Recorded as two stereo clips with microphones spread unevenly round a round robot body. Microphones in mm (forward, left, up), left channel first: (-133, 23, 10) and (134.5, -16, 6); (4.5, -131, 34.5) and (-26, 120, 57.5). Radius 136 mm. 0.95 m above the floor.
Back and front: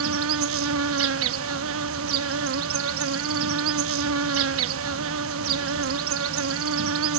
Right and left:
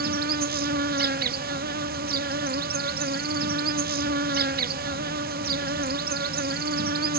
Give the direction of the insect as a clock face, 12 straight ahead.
11 o'clock.